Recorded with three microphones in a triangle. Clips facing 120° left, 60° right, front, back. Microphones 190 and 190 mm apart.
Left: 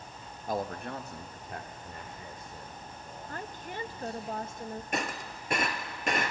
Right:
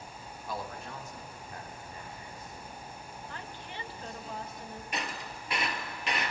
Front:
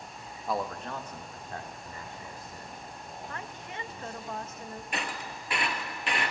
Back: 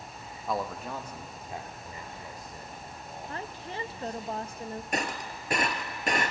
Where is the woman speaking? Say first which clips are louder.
Left 6 dB, back 6 dB; 135° left, 0.8 m.